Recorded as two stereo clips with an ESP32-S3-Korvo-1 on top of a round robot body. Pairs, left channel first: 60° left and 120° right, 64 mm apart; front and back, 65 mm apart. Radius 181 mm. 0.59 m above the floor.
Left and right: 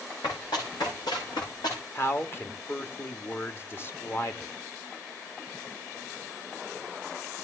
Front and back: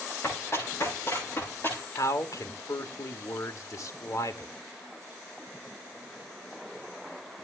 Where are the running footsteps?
45° left, 9.5 m; by 1.8 s 55° left, 9.5 m.